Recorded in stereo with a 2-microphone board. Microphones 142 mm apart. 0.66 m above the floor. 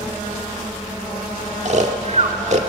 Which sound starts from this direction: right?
Snoring, at 1.6 s.